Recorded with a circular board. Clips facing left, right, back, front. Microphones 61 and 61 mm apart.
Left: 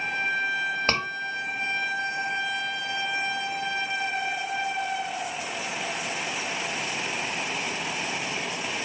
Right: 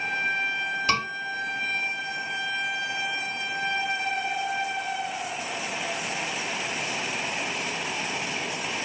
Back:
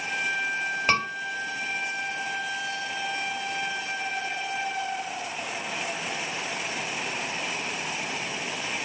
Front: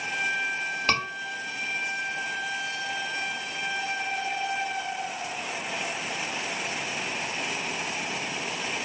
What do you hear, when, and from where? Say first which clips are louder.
0.9 s a scream: right 3 dB, back 2 dB; 105° left, 2 m